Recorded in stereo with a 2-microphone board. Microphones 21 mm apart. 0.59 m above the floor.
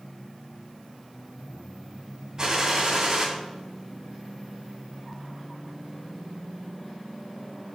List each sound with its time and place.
2.4 s a gunshot: 35° right (ahead or behind), 3 m